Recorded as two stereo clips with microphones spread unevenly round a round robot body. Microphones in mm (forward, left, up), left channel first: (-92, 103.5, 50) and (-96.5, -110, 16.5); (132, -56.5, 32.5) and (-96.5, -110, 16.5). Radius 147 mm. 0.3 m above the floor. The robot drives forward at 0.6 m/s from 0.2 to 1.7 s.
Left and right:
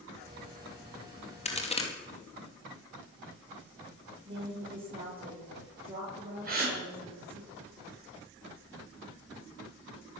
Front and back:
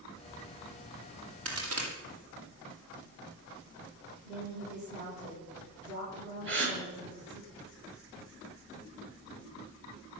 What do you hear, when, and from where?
1.4 s a crack: 150° left, 2.5 m
4.2 s a woman speaking: 155° right, 7.5 m
6.5 s a gasp: 135° right, 6 m